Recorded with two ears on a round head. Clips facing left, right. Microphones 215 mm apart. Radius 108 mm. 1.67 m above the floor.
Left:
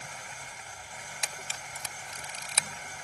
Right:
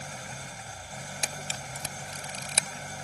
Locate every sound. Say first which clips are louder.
0.0 s an engine running: right 5 dB; 35° right (ahead or behind)
1.2 s a camera shutter: right 4 dB; 30° right (ahead or behind)